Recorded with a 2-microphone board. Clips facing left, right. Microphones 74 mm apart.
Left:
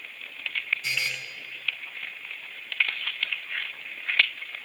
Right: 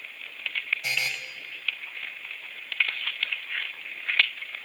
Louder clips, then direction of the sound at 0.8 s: Right 1 dB; 60° right (ahead or behind).